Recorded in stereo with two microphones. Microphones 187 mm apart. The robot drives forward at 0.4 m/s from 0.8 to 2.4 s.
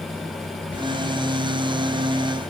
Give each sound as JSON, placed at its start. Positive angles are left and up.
{"t": 0.7, "sound": "whispering", "side_deg": 70, "distance_m": 1.8}